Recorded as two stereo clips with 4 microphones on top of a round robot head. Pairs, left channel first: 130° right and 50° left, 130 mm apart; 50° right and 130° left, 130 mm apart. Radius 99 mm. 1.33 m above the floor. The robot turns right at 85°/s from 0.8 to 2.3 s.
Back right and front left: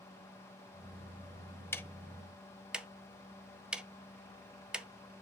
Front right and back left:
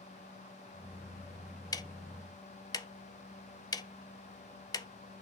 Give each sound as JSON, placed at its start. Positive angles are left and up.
{"t": 1.7, "sound": "ticking", "azimuth_deg": -75, "distance_m": 0.5}